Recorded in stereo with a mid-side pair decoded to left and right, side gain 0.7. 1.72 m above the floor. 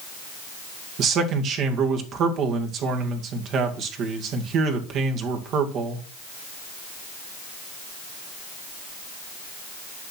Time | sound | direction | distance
1.0 | a man speaking | 50° right | 2 m